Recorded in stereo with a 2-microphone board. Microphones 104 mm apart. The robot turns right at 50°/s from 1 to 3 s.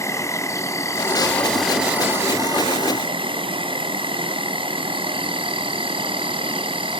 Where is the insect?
145° left, 1.2 m; by 7.0 s 115° right, 1.2 m.